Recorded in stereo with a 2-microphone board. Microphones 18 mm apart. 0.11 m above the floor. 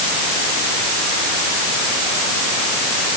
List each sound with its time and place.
Only background noise.